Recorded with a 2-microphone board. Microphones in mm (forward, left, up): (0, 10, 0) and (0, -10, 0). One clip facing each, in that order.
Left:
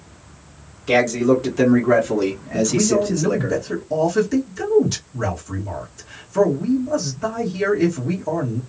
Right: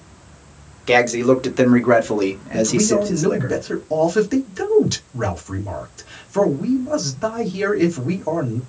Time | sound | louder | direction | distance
0.9 | a man speaking | right 2 dB | 40° right (ahead or behind) | 1.2 m
2.5 | a man speaking | right 1 dB | 40° right (ahead or behind) | 1.6 m